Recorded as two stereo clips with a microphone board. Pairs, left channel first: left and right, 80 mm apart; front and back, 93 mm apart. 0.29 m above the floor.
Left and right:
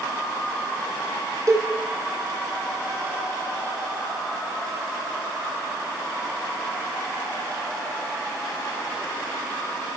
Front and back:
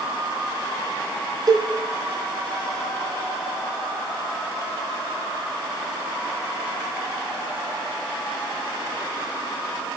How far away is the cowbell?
About 3 m.